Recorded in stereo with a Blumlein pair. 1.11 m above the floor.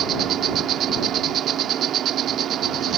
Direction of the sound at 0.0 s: 30° right.